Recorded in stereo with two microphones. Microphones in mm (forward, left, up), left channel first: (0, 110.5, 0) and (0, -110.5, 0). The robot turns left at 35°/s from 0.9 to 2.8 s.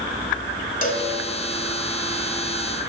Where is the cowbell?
40° left (ahead or behind), 1.1 m; by 1.1 s 30° left (ahead or behind), 1.1 m.